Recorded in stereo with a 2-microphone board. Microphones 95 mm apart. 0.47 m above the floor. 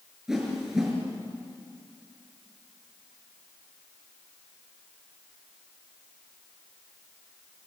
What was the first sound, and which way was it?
A whoosh, 5° right (ahead or behind).